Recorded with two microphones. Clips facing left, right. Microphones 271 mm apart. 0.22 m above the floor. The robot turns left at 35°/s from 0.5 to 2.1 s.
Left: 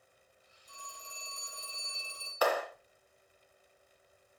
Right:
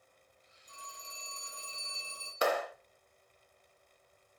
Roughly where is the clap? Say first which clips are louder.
Left 1 dB; right.